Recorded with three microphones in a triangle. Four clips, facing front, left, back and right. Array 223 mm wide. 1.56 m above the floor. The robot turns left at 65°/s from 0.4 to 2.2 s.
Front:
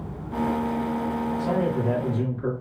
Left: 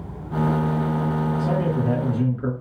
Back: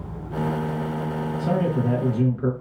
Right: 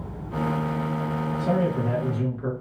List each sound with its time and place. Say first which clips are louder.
1.4 s a man speaking: left 1 dB, back 3 dB; 140° right, 1.7 m; by 2.5 s 170° left, 1.7 m